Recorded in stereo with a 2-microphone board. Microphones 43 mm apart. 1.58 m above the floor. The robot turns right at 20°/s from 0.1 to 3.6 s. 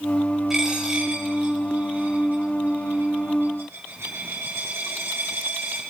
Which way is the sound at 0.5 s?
10° right (ahead or behind).